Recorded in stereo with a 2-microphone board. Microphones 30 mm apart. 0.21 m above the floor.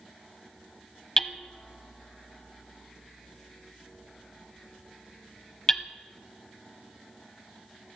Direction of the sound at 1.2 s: 15° left (ahead or behind).